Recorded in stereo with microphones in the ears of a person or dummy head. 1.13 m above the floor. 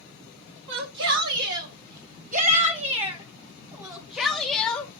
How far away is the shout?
About 2 m.